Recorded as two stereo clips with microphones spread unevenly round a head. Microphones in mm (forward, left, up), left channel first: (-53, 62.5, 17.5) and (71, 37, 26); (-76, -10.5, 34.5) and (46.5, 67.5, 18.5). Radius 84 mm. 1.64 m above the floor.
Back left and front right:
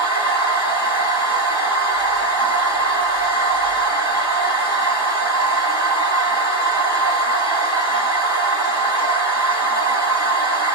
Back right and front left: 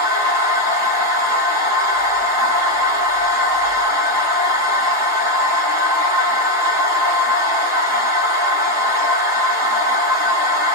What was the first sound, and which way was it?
A machine running, 30° right.